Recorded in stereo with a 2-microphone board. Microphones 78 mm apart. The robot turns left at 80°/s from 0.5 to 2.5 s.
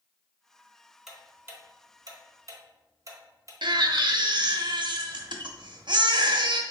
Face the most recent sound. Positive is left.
turn(degrees=-85)